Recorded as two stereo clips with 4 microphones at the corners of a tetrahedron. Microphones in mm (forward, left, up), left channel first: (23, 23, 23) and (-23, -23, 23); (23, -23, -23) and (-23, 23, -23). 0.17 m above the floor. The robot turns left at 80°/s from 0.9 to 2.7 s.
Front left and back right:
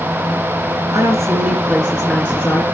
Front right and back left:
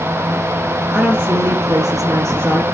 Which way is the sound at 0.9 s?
140° right.